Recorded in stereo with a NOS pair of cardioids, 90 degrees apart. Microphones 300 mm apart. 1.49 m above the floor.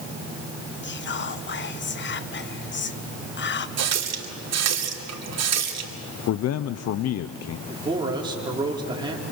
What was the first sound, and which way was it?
Whispering, 40° left.